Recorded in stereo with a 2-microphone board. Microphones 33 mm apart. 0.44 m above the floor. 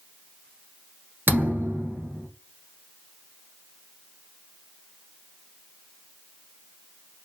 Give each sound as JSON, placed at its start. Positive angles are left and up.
{"t": 1.3, "sound": "a thud", "side_deg": -80, "distance_m": 1.4}